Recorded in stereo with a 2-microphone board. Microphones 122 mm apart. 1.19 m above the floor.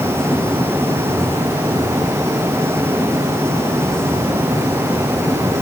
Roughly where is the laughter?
No laughter in this recording.